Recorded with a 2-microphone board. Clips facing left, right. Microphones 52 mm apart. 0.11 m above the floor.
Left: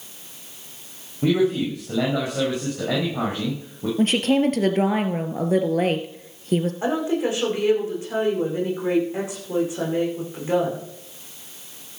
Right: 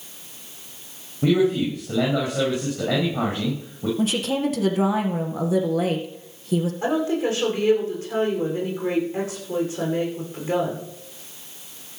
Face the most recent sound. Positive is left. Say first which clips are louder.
# even
turn(degrees=15)  # may be behind; listen again after turning